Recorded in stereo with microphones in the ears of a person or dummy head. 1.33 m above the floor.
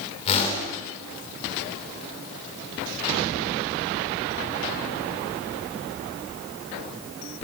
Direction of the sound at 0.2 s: 35° left (ahead or behind).